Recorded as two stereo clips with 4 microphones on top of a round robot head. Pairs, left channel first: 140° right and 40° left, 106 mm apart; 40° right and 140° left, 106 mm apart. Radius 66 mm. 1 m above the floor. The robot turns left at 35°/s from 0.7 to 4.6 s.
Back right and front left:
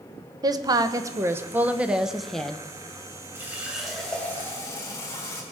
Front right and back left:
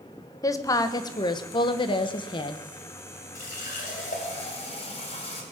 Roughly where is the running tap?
Ahead right.